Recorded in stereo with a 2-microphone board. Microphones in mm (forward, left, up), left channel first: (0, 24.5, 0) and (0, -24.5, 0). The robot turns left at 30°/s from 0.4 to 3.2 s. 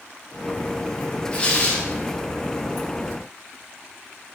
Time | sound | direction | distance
1.3 | tearing paper | 20° left (ahead or behind) | 0.5 m